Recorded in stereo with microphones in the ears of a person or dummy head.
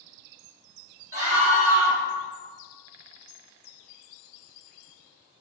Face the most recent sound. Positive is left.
turn(degrees=-15)  # may be behind; listen again after turning